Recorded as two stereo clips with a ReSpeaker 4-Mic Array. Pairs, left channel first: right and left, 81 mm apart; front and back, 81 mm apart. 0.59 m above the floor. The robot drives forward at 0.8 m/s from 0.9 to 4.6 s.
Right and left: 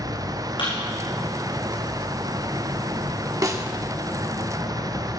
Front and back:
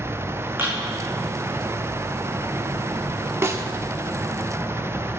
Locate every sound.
0.6 s a thud: 115° right, 7 m
3.4 s a snare drum: 130° left, 1.1 m; by 3.7 s 135° left, 1.2 m